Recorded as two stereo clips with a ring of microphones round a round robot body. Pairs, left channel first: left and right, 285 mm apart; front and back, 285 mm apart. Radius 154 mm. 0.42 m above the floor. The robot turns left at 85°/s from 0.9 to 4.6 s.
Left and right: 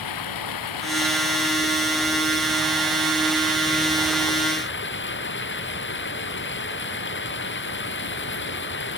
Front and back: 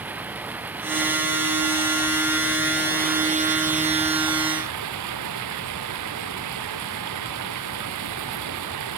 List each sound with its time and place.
0.0 s running water: 95° left; by 9.0 s 140° left